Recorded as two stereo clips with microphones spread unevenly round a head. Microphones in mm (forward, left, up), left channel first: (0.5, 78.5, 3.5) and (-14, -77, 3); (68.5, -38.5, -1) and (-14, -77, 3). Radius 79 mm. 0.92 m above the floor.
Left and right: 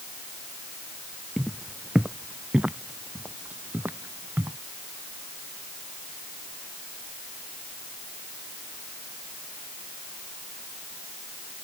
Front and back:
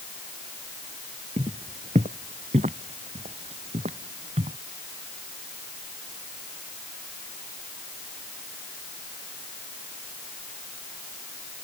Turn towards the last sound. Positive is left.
turn(degrees=-175)